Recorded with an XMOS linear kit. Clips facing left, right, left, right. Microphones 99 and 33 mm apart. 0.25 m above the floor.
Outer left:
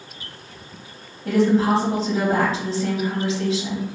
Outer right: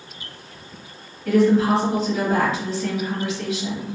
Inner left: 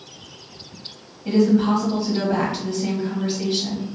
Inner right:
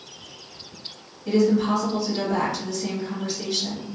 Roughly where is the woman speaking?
Left.